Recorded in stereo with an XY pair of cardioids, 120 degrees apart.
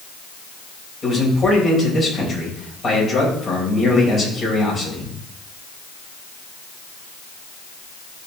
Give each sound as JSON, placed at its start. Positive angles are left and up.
{"t": 1.0, "sound": "a man speaking", "azimuth_deg": 35, "distance_m": 5.5}